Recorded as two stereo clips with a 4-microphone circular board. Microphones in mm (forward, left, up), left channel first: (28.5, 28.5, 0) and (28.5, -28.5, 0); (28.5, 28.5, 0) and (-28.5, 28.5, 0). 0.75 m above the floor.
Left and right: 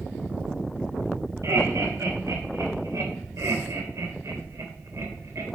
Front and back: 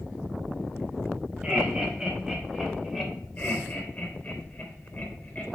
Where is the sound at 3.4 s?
60° right, 3 m.